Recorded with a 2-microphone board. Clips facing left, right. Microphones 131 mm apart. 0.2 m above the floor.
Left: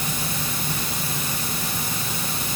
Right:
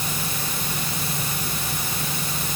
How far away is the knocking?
I don't hear knocking.